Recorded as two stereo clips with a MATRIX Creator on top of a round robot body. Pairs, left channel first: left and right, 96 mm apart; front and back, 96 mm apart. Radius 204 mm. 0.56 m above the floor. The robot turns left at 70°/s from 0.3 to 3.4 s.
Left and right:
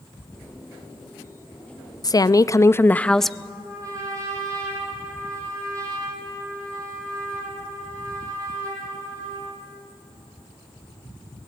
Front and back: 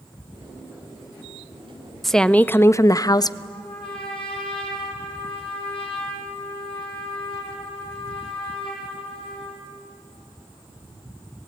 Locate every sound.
2.0 s a woman speaking: 90° left, 0.7 m; by 3.3 s straight ahead, 0.7 m
3.4 s a trumpet: 35° right, 4 m